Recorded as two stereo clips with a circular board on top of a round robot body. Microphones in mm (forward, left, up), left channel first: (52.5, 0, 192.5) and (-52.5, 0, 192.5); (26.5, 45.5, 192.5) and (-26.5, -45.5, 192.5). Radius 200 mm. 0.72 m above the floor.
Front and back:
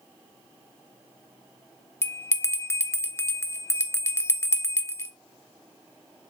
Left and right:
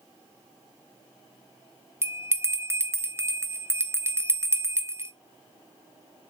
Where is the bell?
60° right, 1.4 m.